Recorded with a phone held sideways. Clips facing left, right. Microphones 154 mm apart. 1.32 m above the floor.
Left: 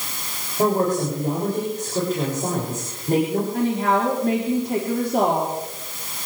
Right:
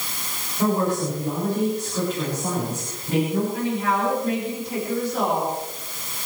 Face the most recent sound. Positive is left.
turn(degrees=60)  # may be behind; listen again after turning